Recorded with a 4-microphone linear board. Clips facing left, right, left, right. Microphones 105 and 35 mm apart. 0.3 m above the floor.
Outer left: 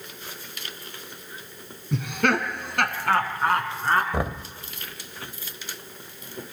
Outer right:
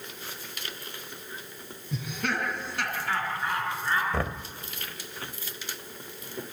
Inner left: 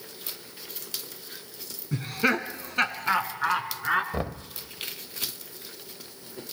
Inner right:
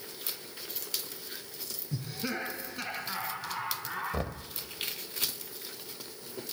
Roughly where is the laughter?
Left.